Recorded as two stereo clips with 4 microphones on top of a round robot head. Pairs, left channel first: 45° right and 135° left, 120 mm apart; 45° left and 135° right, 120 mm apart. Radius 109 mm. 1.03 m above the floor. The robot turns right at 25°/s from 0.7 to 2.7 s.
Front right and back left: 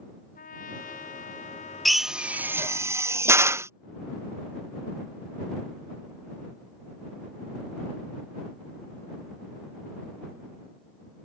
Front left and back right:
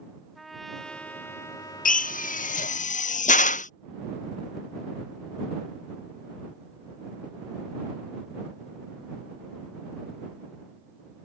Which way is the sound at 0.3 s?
45° right.